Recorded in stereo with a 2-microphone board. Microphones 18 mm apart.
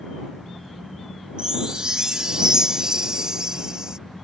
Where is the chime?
40° right (ahead or behind).